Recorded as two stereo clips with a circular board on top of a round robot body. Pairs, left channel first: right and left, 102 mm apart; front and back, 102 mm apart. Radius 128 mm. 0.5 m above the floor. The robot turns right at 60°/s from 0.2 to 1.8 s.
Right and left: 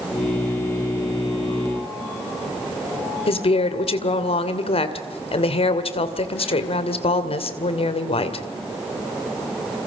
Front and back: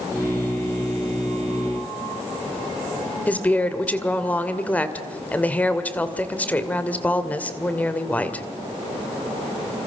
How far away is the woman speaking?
About 2.5 m.